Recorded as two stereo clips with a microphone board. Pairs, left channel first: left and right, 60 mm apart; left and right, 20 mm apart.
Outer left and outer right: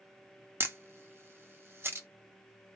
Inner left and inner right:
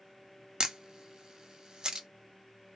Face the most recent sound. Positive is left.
turn(degrees=-40)  # may be behind; listen again after turning